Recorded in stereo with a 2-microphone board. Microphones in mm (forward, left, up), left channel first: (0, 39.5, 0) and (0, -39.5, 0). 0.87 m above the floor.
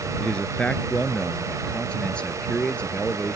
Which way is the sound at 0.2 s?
10° left (ahead or behind).